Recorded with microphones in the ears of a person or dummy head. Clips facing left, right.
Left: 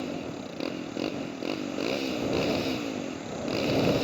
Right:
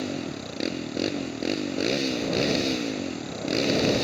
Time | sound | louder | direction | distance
0.0 | a motorcycle | right 3 dB | 25° right (ahead or behind) | ?